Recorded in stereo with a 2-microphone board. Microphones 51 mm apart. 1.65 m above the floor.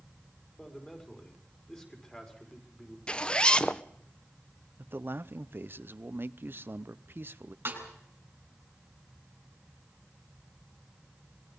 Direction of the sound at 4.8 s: 45° right (ahead or behind).